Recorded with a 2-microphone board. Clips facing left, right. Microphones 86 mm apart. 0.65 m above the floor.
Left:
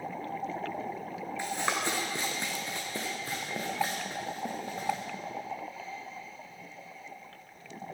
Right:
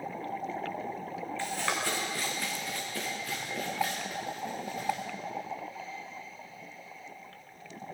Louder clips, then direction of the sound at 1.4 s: Left 2 dB; 15° left (ahead or behind).